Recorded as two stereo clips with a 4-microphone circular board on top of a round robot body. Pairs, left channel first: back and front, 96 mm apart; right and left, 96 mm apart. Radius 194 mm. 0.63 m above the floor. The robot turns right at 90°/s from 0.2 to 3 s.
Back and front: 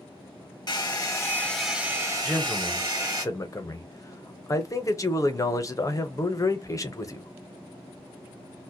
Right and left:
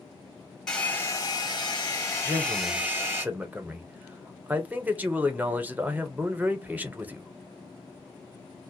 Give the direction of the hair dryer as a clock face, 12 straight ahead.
6 o'clock.